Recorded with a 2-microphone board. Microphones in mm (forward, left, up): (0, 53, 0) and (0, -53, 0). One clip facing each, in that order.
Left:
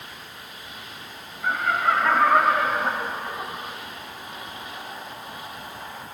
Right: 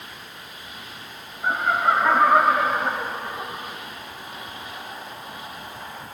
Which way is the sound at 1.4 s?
20° right (ahead or behind).